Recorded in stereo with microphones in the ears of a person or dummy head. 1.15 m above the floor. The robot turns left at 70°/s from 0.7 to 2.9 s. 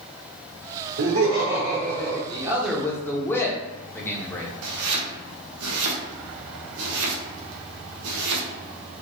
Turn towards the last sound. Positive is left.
turn(degrees=-80)